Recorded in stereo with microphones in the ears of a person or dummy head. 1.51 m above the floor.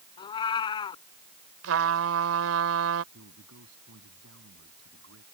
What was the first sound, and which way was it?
A cat meowing, 25° left (ahead or behind).